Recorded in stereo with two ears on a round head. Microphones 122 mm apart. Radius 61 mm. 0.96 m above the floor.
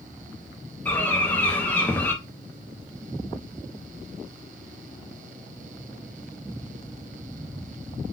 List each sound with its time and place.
0.8 s a bird: 10° left (ahead or behind), 0.6 m